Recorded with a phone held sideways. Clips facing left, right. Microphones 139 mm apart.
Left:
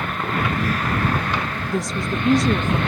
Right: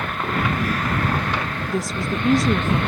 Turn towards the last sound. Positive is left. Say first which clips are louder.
# even
turn(degrees=0)  # may be behind; listen again after turning